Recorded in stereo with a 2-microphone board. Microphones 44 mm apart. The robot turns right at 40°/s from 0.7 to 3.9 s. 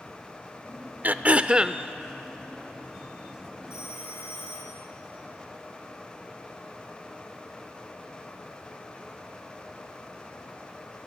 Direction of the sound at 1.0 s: 45° right.